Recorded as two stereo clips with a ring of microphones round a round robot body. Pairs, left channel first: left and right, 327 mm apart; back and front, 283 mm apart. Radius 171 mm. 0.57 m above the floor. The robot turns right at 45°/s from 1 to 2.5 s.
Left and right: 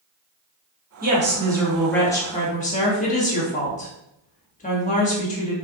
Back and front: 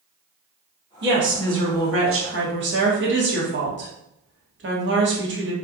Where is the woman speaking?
35° right, 1.4 m; by 5.5 s 30° left, 1.4 m.